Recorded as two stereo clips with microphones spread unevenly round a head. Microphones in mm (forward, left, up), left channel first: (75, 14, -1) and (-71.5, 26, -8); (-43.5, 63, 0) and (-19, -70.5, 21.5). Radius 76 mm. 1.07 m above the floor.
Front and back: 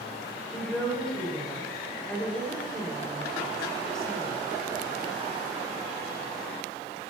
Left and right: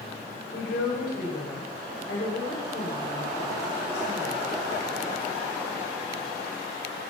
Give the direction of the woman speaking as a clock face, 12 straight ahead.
9 o'clock.